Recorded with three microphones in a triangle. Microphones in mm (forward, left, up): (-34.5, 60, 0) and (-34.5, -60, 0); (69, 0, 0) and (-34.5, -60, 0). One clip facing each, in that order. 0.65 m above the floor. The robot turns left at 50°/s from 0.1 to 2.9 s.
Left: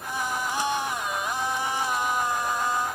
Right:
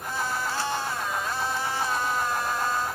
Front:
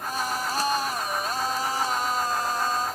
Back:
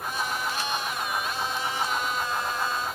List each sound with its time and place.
Only background noise.